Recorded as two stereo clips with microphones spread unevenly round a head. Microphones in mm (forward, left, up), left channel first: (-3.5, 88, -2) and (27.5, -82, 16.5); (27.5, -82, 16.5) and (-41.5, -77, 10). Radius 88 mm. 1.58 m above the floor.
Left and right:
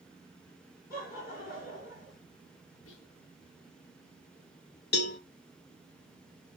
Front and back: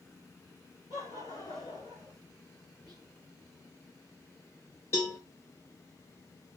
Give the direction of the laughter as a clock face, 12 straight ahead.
10 o'clock.